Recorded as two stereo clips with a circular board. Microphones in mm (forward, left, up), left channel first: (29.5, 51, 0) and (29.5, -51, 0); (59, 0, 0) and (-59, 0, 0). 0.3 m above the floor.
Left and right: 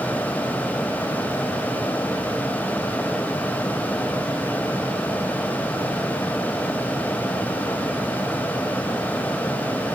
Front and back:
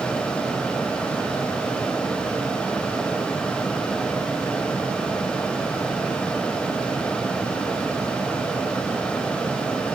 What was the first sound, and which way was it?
Only background noise.